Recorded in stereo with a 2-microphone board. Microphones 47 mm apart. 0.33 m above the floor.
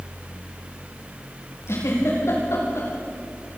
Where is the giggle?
70° left (ahead or behind), 8 m.